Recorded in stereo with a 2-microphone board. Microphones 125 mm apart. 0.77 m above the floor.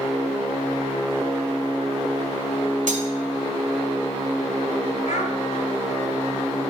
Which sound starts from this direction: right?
Cutlery clinking, at 2.9 s.